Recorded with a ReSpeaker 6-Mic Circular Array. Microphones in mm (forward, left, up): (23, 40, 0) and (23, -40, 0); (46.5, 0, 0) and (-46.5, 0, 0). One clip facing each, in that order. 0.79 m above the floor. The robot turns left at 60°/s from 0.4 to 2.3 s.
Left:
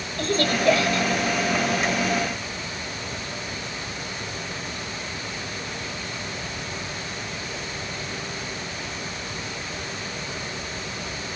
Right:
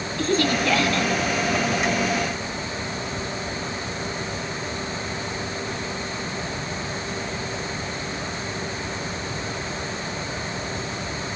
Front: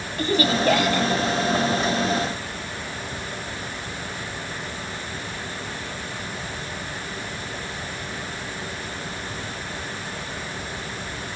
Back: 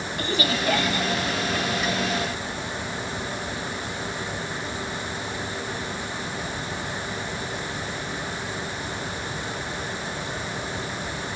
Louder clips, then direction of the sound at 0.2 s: Right 1 dB, front 6 dB; 50° left.